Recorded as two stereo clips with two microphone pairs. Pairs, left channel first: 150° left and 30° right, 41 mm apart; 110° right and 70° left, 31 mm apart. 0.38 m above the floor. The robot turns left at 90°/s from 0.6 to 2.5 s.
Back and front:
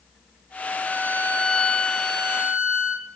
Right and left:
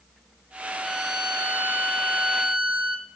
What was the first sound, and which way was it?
A violin, 170° left.